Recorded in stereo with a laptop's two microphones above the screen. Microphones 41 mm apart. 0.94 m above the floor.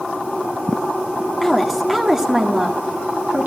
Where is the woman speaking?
5° left (ahead or behind), 1.8 m; by 3.5 s 40° right (ahead or behind), 2.0 m.